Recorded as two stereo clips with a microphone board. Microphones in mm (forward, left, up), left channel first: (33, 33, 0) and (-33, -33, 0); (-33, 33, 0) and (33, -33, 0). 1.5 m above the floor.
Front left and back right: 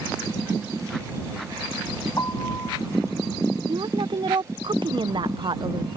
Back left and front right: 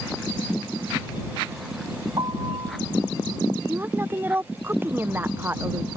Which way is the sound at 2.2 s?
10° right.